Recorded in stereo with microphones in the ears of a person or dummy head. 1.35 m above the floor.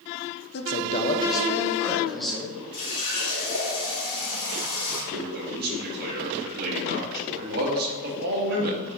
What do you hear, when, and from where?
0.5 s a man speaking: 50° left (ahead or behind), 0.8 m; by 2.6 s 5° right (ahead or behind), 1.8 m
2.7 s a running tap: 45° left (ahead or behind), 3 m
5.1 s a man speaking: 55° right (ahead or behind), 1.8 m